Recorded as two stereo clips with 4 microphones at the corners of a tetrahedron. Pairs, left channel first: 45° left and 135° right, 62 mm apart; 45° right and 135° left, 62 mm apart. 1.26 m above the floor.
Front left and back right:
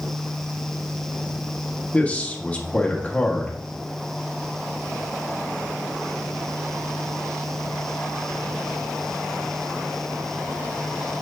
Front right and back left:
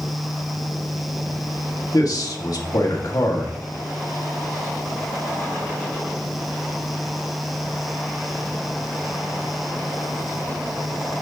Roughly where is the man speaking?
Ahead right.